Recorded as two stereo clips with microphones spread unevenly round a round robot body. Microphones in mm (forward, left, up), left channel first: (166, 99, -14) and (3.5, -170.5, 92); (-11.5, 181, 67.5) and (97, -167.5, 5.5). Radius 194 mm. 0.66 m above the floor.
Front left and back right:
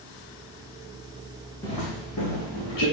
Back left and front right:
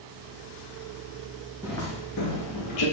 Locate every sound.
1.6 s footsteps: 170° right, 0.6 m; by 2.8 s 105° left, 1.4 m